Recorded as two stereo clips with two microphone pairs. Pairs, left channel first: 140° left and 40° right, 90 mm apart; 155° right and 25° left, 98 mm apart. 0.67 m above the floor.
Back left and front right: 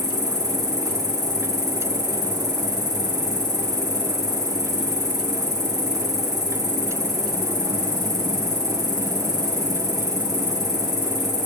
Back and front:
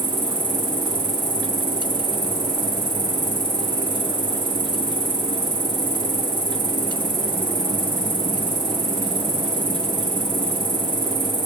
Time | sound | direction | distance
0.0 | an insect | 5° left | 4.5 m